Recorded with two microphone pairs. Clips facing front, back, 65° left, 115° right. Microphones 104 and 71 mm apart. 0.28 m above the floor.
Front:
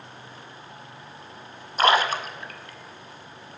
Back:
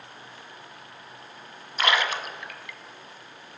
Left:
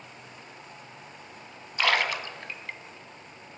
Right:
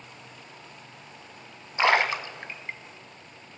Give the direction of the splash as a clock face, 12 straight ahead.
2 o'clock.